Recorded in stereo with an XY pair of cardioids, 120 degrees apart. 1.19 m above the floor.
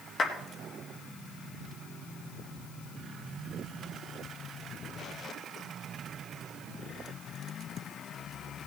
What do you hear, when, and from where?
0.2 s a clap: 40° left, 3 m